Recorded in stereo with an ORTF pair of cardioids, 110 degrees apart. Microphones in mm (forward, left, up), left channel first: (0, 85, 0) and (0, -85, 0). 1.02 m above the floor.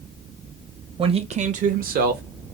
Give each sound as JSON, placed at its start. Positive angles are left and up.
{"t": 1.0, "sound": "a man speaking", "azimuth_deg": -30, "distance_m": 0.7}